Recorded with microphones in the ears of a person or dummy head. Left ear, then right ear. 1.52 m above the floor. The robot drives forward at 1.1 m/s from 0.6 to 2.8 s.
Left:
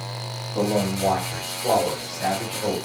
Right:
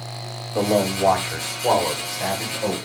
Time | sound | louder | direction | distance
0.6 | a man speaking | right 4 dB | 70° right (ahead or behind) | 1.4 m